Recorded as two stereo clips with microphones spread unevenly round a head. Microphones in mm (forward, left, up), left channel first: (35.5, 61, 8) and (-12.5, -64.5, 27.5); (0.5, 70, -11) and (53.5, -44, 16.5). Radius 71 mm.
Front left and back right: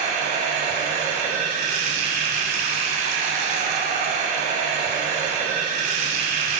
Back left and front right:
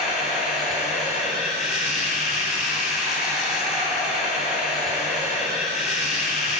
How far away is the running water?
About 7 m.